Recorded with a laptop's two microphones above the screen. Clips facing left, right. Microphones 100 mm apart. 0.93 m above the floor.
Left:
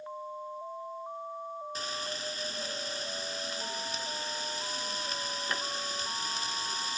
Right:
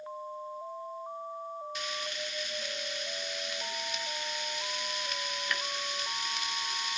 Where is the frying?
30° left (ahead or behind), 0.6 m.